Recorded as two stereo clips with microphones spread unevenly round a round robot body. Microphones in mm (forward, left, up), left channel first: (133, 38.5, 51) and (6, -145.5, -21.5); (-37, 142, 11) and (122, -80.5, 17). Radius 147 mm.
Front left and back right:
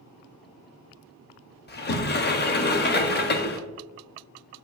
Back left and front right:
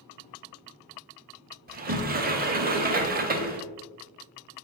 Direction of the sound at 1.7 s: Straight ahead.